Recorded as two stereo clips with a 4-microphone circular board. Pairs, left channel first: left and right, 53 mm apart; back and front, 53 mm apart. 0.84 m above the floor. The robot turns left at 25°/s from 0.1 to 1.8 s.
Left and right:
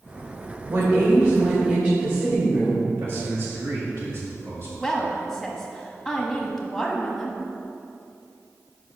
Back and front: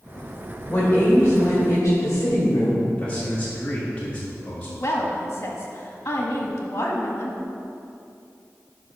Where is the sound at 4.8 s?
175° left, 1.3 m.